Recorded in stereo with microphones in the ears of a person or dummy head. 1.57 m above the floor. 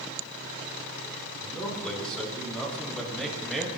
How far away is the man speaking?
About 5 m.